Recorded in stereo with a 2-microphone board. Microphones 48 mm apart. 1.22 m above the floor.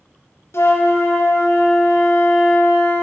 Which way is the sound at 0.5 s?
55° left (ahead or behind).